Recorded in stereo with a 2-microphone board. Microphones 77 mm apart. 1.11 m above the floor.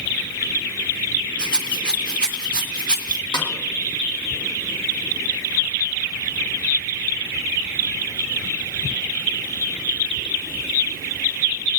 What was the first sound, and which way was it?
A rattle, 10° left (ahead or behind).